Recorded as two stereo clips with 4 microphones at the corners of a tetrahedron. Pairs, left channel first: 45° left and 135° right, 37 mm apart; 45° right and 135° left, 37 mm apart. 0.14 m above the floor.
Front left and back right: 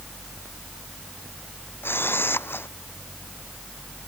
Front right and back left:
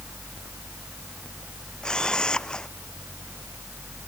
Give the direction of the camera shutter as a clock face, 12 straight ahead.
11 o'clock.